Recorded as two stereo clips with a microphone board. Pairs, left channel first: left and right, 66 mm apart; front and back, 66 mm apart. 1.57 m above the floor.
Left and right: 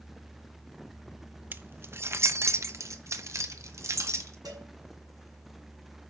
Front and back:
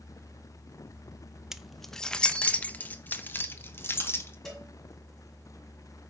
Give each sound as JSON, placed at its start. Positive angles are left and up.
{"t": 1.5, "sound": "keys jangling", "azimuth_deg": -100, "distance_m": 0.8}
{"t": 4.5, "sound": "a cowbell", "azimuth_deg": -80, "distance_m": 5.5}